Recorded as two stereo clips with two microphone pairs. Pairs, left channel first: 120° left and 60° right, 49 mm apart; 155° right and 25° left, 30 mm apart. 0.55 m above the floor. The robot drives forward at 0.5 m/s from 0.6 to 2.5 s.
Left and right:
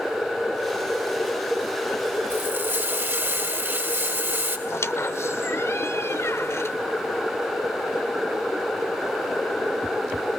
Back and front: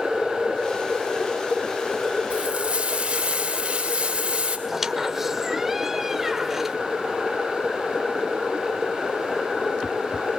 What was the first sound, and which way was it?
Frying, 25° right.